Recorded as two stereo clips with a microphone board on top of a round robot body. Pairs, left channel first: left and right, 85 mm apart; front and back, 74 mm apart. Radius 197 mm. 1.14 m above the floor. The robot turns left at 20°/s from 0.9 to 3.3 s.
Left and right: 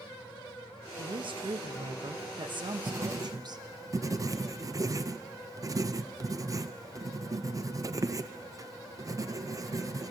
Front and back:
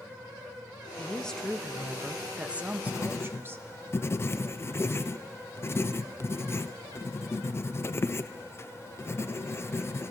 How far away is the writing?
About 0.5 m.